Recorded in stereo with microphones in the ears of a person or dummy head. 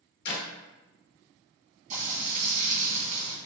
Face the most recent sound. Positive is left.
turn(degrees=-55)  # may be behind; listen again after turning